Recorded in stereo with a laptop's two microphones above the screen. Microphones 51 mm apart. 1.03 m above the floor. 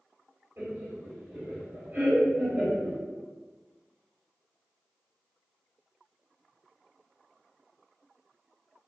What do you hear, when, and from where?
0.6 s laughter: 45° right (ahead or behind), 1.4 m